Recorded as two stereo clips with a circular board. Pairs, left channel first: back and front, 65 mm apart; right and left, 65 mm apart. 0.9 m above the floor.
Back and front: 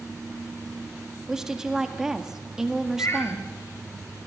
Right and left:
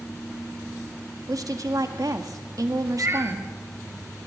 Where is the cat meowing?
135° left, 2.5 m.